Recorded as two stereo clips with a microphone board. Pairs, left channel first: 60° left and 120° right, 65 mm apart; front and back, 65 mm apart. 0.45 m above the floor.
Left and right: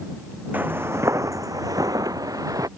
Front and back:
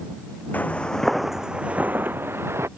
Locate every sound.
0.5 s footsteps: 60° right; by 2.7 s 135° right